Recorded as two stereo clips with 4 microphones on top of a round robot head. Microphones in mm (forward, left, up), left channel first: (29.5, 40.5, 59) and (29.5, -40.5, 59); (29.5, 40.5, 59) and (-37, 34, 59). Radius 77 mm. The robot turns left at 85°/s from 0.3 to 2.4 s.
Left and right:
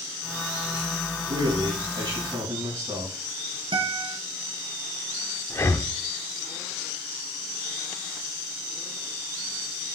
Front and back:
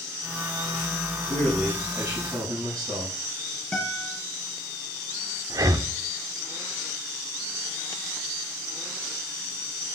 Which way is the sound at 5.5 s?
150° left.